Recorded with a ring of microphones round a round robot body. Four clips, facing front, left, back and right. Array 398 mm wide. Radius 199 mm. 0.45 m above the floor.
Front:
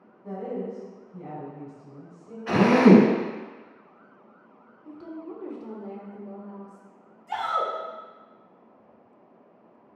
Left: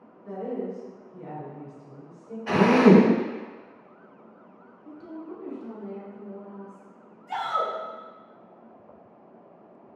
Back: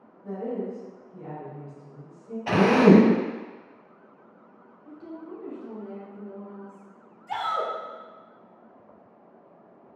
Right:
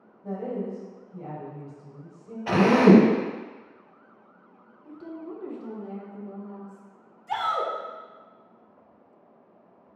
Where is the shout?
115° right, 1.1 m.